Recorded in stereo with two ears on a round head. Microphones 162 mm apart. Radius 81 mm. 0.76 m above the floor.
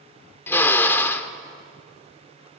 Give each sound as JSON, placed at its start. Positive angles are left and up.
{"t": 0.5, "sound": "a drill", "side_deg": 10, "distance_m": 1.1}